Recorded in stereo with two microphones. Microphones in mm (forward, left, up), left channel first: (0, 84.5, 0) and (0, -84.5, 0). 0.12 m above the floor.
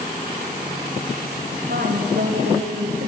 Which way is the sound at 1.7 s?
75° right (ahead or behind).